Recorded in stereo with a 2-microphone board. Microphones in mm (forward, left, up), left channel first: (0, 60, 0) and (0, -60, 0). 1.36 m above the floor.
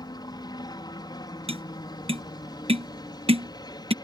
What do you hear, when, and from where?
0.0 s a helicopter: 35° left (ahead or behind)
1.5 s tapping: 50° right (ahead or behind)